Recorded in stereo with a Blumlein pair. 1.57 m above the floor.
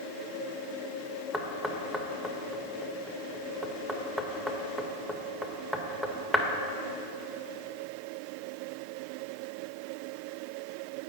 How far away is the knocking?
About 0.6 m.